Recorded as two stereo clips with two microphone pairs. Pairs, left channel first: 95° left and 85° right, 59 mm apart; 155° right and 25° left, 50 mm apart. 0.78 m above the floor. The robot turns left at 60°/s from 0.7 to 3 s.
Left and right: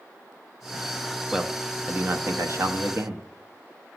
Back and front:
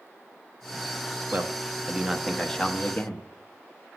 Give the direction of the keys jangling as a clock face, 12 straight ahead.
No keys jangling in this recording.